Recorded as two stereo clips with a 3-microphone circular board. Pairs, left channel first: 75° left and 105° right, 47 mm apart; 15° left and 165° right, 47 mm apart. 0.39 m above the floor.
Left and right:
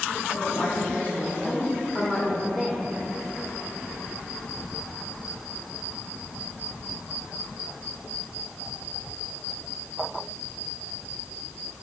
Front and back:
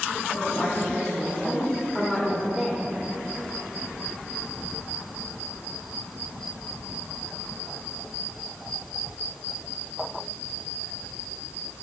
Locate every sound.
0.3 s a woman speaking: 75° left, 1.9 m; by 2.8 s 155° right, 1.1 m